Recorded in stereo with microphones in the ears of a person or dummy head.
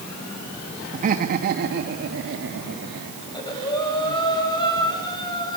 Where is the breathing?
20° left (ahead or behind), 6 m.